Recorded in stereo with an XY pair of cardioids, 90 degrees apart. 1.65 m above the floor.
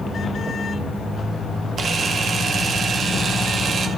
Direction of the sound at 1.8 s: 60° right.